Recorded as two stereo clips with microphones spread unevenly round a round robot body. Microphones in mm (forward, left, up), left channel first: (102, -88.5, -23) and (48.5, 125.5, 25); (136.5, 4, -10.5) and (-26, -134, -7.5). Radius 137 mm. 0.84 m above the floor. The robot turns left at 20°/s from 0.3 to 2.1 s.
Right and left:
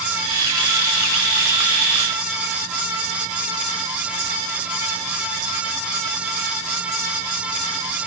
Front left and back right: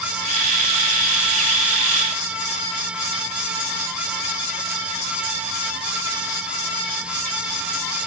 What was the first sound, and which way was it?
Only background noise.